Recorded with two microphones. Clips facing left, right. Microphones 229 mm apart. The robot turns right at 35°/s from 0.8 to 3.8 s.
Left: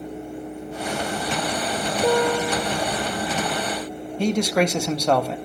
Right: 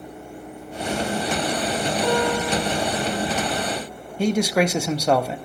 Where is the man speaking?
5° right (ahead or behind), 0.9 m.